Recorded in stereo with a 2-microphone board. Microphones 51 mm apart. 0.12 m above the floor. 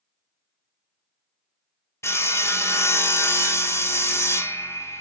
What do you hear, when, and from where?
2.0 s sawing: 65° left (ahead or behind), 0.6 m